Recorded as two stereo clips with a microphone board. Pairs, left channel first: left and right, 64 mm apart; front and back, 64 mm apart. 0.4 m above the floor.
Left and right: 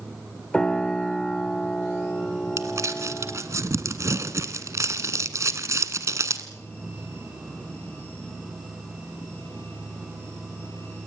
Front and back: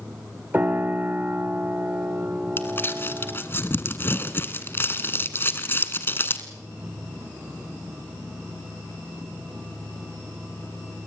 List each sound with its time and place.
0.5 s a piano: 155° left, 1.3 m
2.6 s crumpling: 55° right, 1.3 m